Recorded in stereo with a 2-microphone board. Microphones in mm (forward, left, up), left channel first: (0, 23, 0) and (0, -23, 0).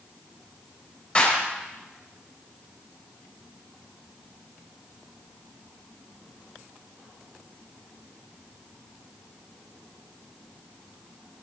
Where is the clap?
25° left (ahead or behind), 4.5 m.